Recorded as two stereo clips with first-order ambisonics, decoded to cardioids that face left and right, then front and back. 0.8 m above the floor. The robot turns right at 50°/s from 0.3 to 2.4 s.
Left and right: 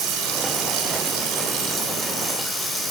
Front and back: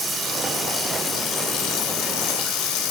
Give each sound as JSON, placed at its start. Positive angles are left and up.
{"t": 0.0, "sound": "running water", "azimuth_deg": -110, "distance_m": 1.5}